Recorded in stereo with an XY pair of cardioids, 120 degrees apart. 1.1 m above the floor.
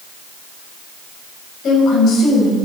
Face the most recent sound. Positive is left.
turn(degrees=55)